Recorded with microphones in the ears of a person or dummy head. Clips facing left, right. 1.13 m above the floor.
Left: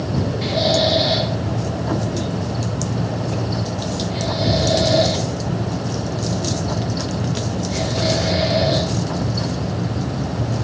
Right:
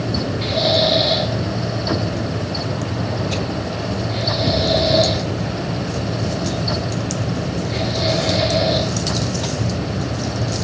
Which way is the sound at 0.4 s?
5° left (ahead or behind).